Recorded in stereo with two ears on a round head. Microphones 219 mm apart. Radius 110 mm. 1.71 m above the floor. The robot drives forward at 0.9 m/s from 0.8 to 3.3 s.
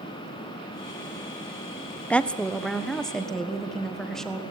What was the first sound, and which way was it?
A woman speaking, 5° left (ahead or behind).